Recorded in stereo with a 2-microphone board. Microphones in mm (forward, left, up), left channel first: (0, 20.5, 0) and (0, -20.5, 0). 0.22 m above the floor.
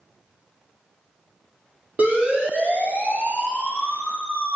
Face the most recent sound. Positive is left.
turn(degrees=-60)  # may be behind; listen again after turning